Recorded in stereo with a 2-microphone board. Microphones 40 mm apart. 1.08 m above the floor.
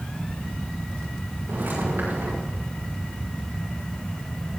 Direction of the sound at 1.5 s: 80° right.